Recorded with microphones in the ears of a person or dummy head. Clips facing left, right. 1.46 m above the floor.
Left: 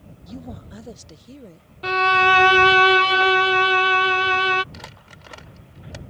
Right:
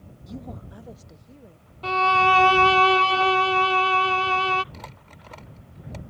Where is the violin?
10° left (ahead or behind).